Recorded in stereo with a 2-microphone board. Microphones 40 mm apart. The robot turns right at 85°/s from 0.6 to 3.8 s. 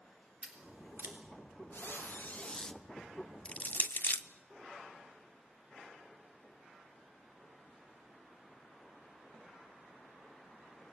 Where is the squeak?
85° left, 1.0 m; by 2.8 s straight behind, 1.0 m.